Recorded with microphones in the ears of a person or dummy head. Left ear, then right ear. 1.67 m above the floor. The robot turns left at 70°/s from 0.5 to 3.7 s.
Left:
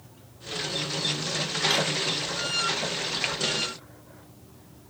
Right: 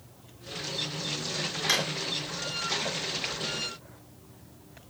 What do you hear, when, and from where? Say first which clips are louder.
1.7 s a drawer: left 1 dB; 70° right (ahead or behind), 4 m; by 1.9 s 60° right (ahead or behind), 4 m